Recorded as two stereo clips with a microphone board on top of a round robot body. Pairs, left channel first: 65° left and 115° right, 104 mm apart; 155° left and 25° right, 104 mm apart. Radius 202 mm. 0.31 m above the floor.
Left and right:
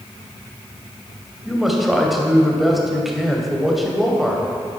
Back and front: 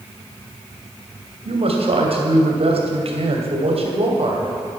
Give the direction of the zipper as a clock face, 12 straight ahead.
I don't hear a zipper.